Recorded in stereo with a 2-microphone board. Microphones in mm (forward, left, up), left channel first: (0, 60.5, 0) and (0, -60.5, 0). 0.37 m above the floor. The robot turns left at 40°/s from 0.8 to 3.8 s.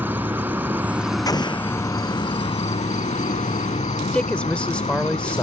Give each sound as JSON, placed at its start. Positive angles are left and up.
{"t": 0.0, "sound": "an insect", "azimuth_deg": -165}
{"t": 1.3, "sound": "an explosion", "side_deg": 30}
{"t": 4.1, "sound": "a man speaking", "side_deg": 10}